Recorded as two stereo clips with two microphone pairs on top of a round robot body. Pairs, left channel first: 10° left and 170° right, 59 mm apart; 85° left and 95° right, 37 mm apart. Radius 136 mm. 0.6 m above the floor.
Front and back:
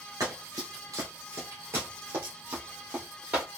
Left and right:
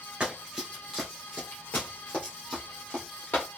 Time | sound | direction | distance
0.2 | running footsteps | 155° right | 0.7 m